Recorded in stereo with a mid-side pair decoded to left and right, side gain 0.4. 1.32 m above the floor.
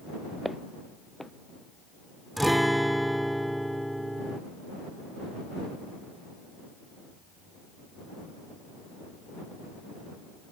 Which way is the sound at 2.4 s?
5° right.